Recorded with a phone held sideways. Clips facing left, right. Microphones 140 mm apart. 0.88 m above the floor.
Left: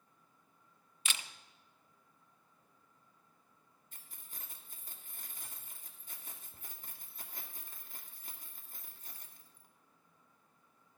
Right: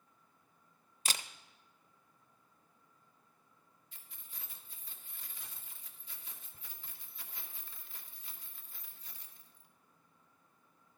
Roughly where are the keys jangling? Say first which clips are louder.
Left 2 dB; left.